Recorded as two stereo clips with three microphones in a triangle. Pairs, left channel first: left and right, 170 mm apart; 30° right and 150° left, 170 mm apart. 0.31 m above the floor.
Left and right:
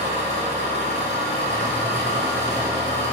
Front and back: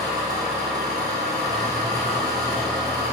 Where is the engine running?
140° right, 2.5 m.